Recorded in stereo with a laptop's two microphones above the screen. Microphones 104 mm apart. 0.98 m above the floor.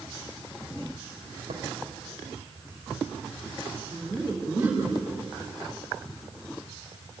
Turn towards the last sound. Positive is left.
turn(degrees=-20)  # may be behind; listen again after turning